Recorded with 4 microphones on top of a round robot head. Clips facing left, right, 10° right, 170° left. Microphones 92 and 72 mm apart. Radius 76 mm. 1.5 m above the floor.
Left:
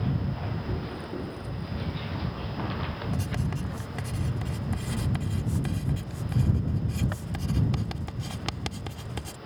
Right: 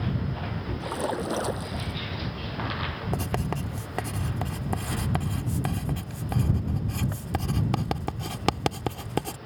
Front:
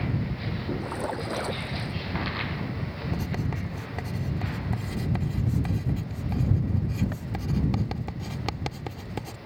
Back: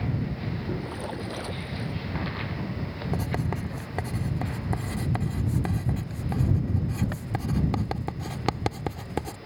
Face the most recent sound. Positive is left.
turn(degrees=-125)